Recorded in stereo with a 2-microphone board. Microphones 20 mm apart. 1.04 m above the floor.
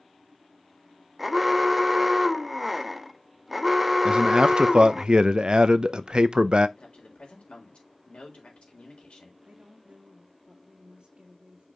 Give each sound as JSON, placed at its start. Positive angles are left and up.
{"t": 1.2, "sound": "an alarm", "side_deg": -10, "distance_m": 0.8}
{"t": 4.0, "sound": "a man speaking", "side_deg": -50, "distance_m": 0.7}
{"t": 6.8, "sound": "a man speaking", "side_deg": 80, "distance_m": 4.0}
{"t": 9.4, "sound": "a woman speaking", "side_deg": -75, "distance_m": 2.0}